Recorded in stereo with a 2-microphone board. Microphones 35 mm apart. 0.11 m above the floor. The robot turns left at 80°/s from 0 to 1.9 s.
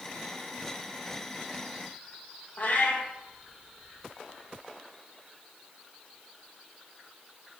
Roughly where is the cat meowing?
Left.